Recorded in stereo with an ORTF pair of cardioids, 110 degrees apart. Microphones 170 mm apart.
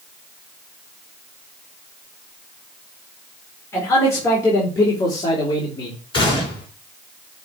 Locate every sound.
3.7 s a man speaking: 15° left, 4.5 m; by 6.0 s 30° left, 2.5 m
6.1 s a gunshot: 30° left, 3.5 m